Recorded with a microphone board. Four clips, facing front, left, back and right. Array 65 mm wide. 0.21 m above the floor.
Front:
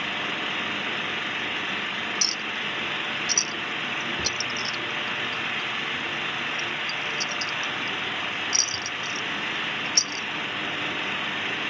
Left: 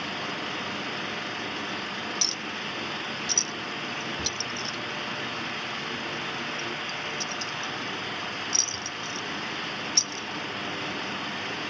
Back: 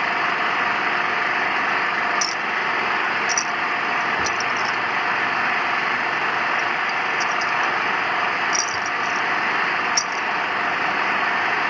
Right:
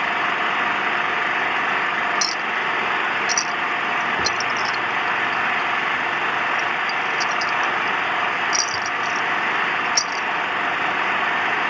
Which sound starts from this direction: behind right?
An engine running, at 0.0 s.